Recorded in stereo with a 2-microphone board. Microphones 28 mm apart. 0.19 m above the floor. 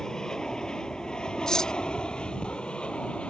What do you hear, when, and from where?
0.0 s an aircraft: 20° left (ahead or behind); by 3.3 s 45° left (ahead or behind)
1.5 s cutlery clinking: 25° left (ahead or behind)